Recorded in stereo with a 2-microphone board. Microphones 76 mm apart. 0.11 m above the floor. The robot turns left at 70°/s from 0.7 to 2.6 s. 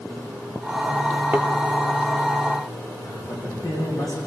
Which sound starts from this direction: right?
A thud, at 1.3 s.